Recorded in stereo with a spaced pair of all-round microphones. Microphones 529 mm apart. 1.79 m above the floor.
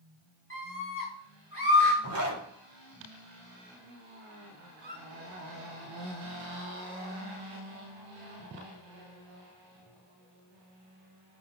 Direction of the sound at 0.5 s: 25° left (ahead or behind).